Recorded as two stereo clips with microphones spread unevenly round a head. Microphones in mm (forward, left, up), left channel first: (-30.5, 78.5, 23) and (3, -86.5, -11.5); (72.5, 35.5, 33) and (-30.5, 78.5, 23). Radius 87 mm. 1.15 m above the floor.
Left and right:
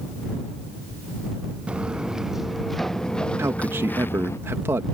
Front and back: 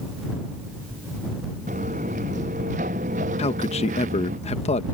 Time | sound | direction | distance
1.7 | footsteps | 165° right | ?
3.4 | a man speaking | 5° right | ?